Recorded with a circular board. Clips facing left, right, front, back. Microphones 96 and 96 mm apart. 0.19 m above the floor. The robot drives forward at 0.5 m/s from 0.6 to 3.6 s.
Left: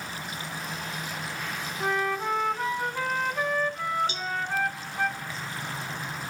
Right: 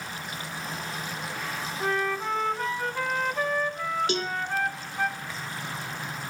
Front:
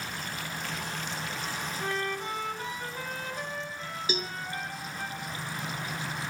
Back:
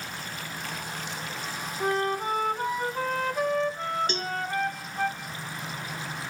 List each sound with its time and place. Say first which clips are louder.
1.8 s a flute: left 1 dB, back 8 dB; 170° left, 1.3 m; by 5.1 s 175° left, 2.0 m
4.1 s a cowbell: right 5 dB, back 2 dB; 85° right, 0.8 m